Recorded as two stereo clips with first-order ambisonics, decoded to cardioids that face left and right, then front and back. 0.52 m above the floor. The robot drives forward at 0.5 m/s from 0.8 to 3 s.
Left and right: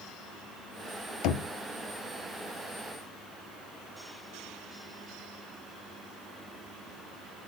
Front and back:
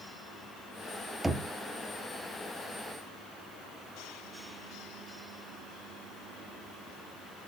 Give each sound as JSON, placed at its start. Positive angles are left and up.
{"t": 1.2, "sound": "knocking", "azimuth_deg": 95, "distance_m": 0.6}